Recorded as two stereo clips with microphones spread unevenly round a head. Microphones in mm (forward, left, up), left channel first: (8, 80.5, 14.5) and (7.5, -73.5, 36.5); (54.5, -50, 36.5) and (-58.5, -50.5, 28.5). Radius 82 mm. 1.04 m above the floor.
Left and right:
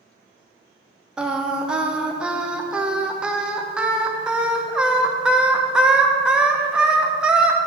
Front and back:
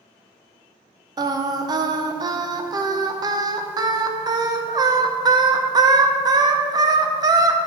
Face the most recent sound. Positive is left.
turn(degrees=180)